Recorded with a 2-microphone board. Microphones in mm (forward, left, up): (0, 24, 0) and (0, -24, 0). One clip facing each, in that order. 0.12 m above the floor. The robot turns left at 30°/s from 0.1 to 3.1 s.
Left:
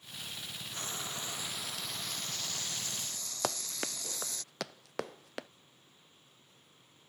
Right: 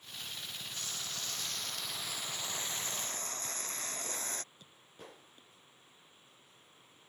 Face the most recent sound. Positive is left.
turn(degrees=90)